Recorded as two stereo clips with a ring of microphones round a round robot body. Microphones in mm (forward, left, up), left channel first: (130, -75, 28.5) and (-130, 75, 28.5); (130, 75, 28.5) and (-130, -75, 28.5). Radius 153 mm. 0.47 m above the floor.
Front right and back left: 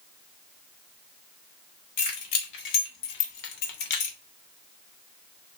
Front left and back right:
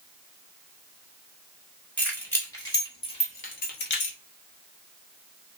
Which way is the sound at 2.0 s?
55° right.